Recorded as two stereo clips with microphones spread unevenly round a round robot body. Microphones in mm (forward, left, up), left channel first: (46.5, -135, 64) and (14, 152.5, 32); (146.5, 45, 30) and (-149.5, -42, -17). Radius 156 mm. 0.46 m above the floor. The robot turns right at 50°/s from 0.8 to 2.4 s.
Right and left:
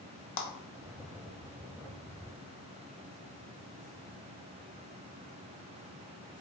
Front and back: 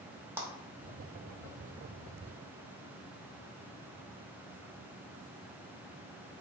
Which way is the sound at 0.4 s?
90° right.